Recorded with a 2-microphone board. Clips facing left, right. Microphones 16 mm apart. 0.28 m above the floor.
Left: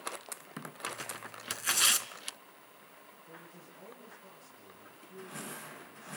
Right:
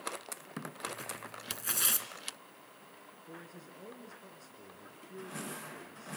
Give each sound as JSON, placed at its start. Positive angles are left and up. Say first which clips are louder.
{"t": 0.9, "sound": "tearing paper", "louder": "left 1 dB", "side_deg": 25, "distance_m": 1.0}
{"t": 3.3, "sound": "a man speaking", "louder": "right 3 dB", "side_deg": -40, "distance_m": 3.0}